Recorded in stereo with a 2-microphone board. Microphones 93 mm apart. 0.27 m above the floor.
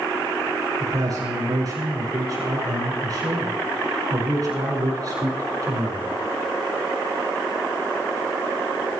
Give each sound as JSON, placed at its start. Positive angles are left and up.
{"t": 0.8, "sound": "a man speaking", "side_deg": -45, "distance_m": 4.5}